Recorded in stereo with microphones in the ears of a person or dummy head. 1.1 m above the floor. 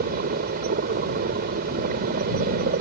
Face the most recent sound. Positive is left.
turn(degrees=-50)  # may be behind; listen again after turning